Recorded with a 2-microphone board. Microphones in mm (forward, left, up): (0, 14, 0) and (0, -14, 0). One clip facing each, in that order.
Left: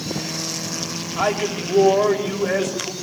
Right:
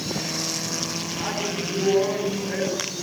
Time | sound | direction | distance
1.2 | a man speaking | 85° left | 7.5 m